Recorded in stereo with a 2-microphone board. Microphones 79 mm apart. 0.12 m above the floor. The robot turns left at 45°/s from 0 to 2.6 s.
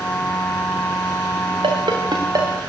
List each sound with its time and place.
1.6 s a ringtone: 80° right, 5.5 m; by 2.6 s 40° right (ahead or behind), 5.5 m